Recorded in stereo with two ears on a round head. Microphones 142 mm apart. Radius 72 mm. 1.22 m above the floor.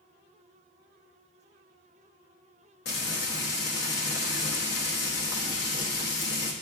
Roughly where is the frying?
Left.